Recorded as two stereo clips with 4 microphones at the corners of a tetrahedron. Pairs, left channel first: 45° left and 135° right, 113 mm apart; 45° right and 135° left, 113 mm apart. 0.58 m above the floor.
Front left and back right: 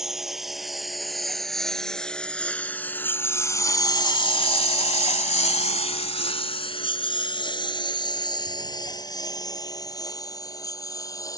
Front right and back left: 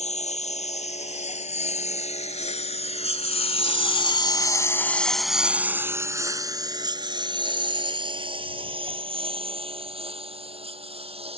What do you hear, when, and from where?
0.0 s a lawn mower: 50° right; by 11.4 s 105° left